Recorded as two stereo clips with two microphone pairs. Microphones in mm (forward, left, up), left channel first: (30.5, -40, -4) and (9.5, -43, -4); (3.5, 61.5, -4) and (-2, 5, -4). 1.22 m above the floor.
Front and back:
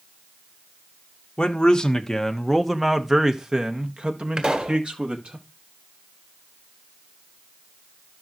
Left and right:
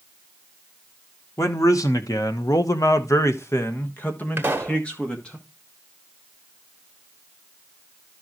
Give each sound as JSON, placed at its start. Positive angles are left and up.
{"t": 1.4, "sound": "a man speaking", "azimuth_deg": 55, "distance_m": 1.4}
{"t": 4.4, "sound": "a pop", "azimuth_deg": -150, "distance_m": 1.6}